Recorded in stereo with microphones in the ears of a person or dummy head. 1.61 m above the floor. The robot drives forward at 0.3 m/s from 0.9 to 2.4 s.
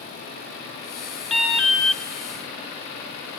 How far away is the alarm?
About 0.7 m.